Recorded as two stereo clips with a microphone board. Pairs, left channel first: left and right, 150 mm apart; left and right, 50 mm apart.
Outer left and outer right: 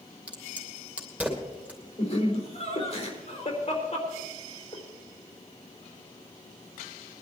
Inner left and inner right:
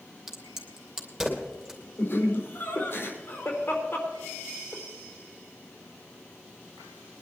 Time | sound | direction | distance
0.3 | a crack | 10° right (ahead or behind) | 2.5 m
2.0 | laughter | 45° left (ahead or behind) | 4 m